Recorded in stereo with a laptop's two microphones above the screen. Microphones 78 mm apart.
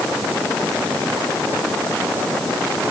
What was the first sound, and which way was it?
Only background noise.